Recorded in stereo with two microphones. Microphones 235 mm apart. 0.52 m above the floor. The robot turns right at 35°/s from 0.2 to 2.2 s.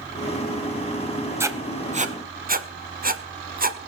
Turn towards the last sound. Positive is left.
turn(degrees=-40)  # may be behind; listen again after turning